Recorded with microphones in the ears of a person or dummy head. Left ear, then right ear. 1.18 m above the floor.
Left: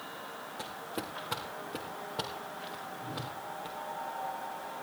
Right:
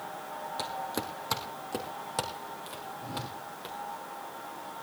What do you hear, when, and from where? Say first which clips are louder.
0.6 s footsteps: right 5 dB; 30° right (ahead or behind), 1.6 m; by 3.8 s 75° right (ahead or behind), 5 m
3.0 s a whoosh: right 3 dB; 80° right, 7 m